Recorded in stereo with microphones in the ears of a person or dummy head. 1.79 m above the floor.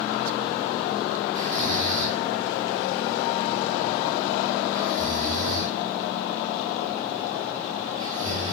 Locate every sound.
1.4 s snoring: 45° right (ahead or behind), 0.6 m